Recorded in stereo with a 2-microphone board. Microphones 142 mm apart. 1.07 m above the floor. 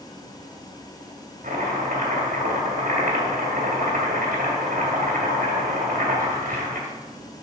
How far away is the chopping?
About 2 m.